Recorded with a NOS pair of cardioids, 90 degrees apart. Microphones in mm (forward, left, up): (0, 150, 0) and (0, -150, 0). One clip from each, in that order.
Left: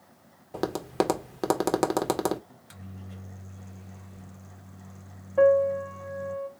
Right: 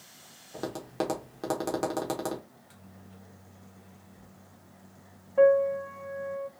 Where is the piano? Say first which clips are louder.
Left 1 dB; 10° left, 0.9 m.